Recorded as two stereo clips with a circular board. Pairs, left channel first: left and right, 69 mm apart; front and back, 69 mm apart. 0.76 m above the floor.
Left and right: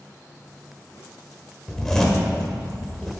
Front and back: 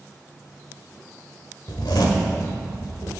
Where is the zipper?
5° left, 1.4 m.